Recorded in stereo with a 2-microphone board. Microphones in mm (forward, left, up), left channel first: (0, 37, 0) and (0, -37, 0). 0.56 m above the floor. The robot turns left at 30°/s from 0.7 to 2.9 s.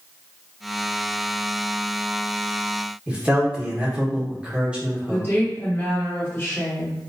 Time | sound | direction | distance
3.1 | a man speaking | 15° right (ahead or behind) | 1.1 m
5.1 | a woman speaking | 35° left (ahead or behind) | 1.3 m